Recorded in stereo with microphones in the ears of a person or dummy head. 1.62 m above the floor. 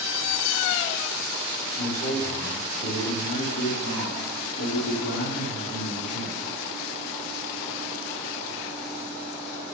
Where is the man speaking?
45° left (ahead or behind), 3.5 m; by 6.5 s 85° left, 4 m.